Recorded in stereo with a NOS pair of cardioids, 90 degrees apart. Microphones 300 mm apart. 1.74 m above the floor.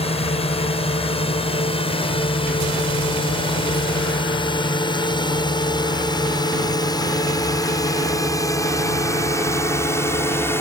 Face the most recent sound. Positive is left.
turn(degrees=10)